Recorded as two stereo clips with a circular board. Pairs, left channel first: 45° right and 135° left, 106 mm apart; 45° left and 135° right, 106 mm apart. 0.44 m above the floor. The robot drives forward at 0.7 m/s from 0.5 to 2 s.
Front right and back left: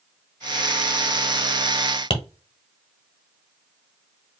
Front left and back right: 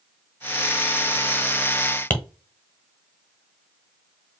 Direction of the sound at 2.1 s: 20° right.